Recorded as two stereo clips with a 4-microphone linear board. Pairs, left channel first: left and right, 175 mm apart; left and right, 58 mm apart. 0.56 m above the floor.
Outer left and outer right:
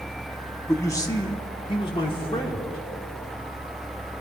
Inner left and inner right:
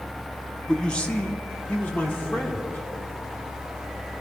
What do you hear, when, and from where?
0.7 s a man speaking: 15° left (ahead or behind), 1.0 m; by 2.8 s 30° left (ahead or behind), 1.8 m